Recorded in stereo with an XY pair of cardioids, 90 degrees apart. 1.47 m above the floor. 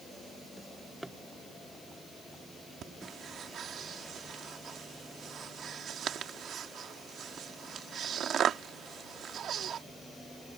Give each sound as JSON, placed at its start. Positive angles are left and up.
{"t": 0.6, "sound": "a drawer", "azimuth_deg": -10}
{"t": 2.8, "sound": "breathing", "azimuth_deg": -70}